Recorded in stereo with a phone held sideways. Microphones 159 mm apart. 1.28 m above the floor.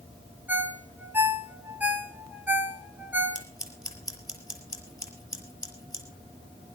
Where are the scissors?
25° left (ahead or behind), 5 m.